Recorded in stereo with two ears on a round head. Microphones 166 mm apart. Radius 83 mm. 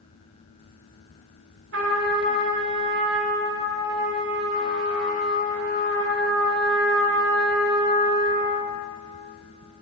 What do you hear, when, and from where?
1.7 s a trumpet: 65° right (ahead or behind), 1.3 m